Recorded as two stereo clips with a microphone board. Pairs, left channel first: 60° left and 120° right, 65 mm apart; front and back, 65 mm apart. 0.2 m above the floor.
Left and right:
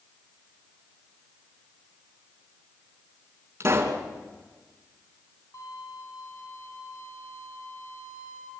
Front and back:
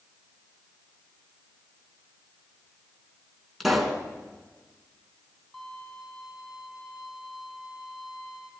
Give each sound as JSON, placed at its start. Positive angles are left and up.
{"t": 3.6, "sound": "a pop", "azimuth_deg": -90, "distance_m": 2.5}
{"t": 5.5, "sound": "a violin", "azimuth_deg": 80, "distance_m": 5.5}